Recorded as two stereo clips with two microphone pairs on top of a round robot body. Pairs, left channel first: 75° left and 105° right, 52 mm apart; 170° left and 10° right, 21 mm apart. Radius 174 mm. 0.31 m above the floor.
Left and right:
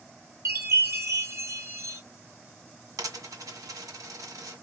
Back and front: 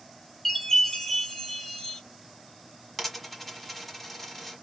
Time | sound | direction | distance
0.5 | a chime | 125° right | 2.0 m
3.0 | a dropped coin | 110° right | 1.6 m